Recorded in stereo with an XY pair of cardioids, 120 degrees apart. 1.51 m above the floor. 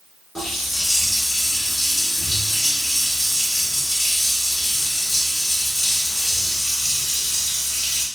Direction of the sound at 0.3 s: 25° left.